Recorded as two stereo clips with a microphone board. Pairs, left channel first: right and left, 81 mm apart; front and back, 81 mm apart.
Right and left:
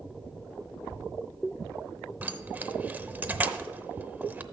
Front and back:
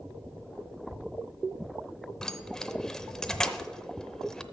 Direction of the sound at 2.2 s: 70° left.